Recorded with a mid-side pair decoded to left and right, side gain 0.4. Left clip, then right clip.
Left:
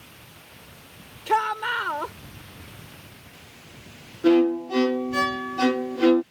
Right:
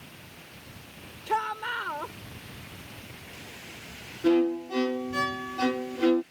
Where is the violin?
40° left.